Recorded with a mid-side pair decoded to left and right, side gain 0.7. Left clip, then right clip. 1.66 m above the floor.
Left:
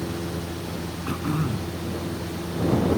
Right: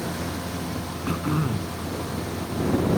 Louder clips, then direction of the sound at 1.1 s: Right 1 dB; 5° right.